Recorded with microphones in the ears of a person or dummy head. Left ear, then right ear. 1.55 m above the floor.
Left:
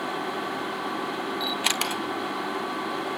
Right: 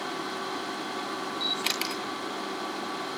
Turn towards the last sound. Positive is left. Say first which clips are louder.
# left 3 dB
turn(degrees=20)  # may be behind; listen again after turning